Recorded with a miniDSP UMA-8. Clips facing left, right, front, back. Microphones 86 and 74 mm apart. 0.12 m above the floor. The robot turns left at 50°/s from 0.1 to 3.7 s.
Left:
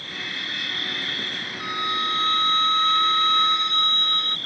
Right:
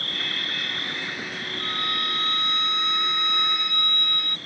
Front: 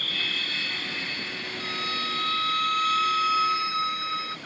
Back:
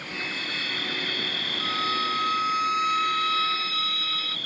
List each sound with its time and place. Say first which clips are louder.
0.0 s an insect: right 1 dB, even; 115° right; by 4.5 s 65° left
1.6 s a violin: left 5 dB, back 6 dB; 155° left; by 4.4 s 50° left